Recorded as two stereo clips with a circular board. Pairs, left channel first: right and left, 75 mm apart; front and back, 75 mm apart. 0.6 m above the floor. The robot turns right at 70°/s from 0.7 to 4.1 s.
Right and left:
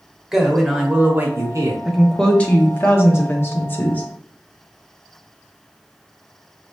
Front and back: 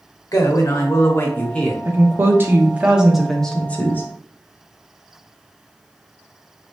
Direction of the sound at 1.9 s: 170° left.